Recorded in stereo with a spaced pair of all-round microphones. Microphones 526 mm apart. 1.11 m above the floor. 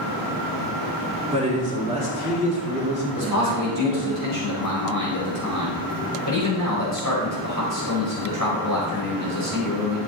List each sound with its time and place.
1.3 s a man speaking: 10° right (ahead or behind), 3.5 m
3.1 s a man speaking: 35° left (ahead or behind), 4.5 m